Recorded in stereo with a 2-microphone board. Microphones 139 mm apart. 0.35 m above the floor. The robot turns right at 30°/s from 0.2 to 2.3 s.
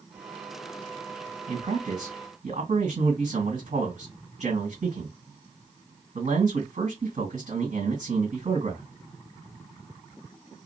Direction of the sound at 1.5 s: 55° right (ahead or behind).